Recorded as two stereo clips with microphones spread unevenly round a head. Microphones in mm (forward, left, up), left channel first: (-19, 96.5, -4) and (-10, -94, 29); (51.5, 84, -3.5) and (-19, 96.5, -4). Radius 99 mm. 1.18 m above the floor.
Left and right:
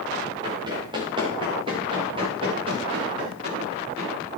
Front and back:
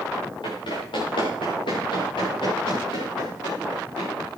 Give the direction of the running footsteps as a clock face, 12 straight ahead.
1 o'clock.